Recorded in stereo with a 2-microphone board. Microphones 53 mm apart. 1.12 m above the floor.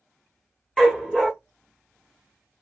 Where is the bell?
No bell in this recording.